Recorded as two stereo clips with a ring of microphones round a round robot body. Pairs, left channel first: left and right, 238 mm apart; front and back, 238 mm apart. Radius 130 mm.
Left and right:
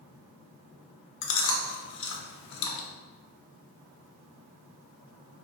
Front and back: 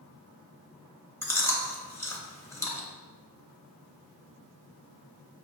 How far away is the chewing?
About 0.7 m.